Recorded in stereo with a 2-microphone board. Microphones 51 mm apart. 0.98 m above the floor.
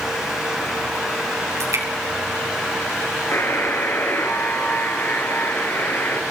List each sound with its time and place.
1.6 s dripping: 85° right, 8.5 m
3.3 s a buzzer: 45° left (ahead or behind), 4 m